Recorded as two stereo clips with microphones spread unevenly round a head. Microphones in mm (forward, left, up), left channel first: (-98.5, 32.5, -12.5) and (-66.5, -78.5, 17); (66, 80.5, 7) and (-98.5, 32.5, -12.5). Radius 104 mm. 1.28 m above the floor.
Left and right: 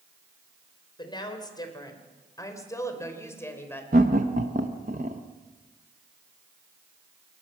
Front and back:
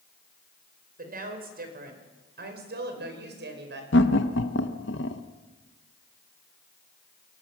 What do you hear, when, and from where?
1.0 s a woman speaking: 160° left, 4.5 m; by 3.8 s straight behind, 4.5 m
3.9 s laughter: 25° right, 1.0 m